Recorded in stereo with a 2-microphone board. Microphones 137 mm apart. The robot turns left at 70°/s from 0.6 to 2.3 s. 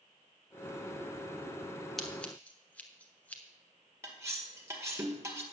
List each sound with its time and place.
2.0 s scissors: centre (ahead or behind), 1.3 m; by 3.4 s 10° left (ahead or behind), 1.3 m
4.0 s cutlery clinking: 20° right (ahead or behind), 1.7 m